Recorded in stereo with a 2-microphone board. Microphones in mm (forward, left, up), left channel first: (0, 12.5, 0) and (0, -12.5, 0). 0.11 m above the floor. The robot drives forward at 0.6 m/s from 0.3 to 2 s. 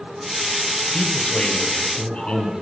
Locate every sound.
0.9 s a man speaking: 55° left (ahead or behind), 2 m; by 2.5 s 60° left (ahead or behind), 2 m